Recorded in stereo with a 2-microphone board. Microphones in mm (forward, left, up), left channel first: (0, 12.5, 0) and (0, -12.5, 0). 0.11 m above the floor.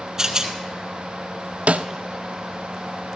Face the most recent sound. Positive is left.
turn(degrees=-75)  # may be behind; listen again after turning